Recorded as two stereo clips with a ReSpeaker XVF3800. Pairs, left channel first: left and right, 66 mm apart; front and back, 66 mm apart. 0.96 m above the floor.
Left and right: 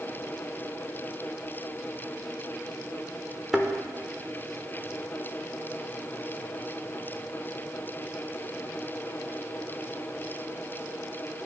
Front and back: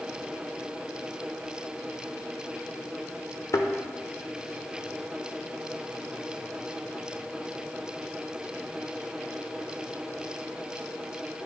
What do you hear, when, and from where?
3.5 s a thud: straight ahead, 0.8 m